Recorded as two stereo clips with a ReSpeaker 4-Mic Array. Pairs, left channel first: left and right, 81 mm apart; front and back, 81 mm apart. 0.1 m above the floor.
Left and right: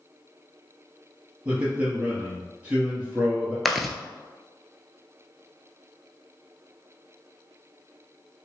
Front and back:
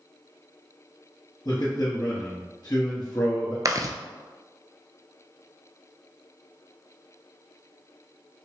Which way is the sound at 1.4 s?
25° right.